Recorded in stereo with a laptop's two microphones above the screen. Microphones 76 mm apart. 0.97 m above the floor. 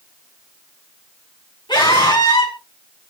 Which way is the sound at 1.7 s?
85° left.